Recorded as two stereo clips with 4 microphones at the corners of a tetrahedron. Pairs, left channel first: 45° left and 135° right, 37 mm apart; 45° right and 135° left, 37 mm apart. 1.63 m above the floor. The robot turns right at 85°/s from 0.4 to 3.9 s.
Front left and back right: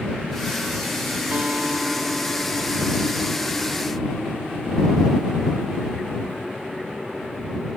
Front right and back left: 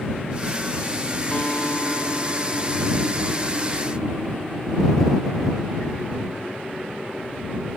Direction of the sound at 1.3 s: 100° right.